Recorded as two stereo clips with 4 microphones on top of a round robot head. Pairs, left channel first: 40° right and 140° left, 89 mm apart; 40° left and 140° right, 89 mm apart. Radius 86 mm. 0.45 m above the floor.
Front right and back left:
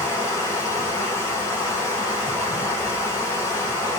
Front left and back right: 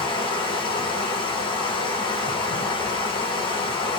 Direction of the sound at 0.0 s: 20° left.